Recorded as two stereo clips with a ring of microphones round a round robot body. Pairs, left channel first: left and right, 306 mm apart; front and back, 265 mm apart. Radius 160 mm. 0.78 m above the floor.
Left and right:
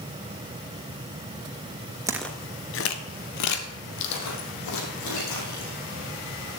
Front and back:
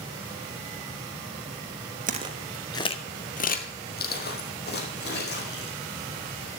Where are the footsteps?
160° right, 0.8 m; by 5.8 s 50° left, 4 m.